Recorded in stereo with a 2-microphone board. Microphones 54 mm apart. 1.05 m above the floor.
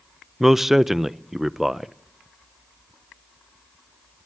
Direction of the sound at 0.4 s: 5° right (ahead or behind).